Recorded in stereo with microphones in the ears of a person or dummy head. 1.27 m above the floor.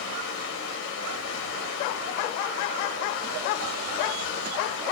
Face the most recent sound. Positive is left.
turn(degrees=80)